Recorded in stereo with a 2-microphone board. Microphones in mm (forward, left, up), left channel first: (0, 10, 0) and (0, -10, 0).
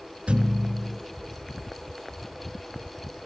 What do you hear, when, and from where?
0.3 s a thud: 75° right (ahead or behind), 4 m